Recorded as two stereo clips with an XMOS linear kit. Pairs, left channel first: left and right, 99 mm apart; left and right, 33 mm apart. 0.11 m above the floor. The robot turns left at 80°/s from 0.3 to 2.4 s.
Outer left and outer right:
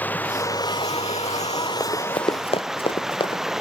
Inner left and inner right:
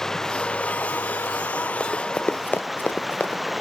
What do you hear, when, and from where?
0.0 s running water: 165° left; by 3.6 s 5° right
1.8 s running footsteps: 25° left (ahead or behind); by 3.4 s 55° left (ahead or behind)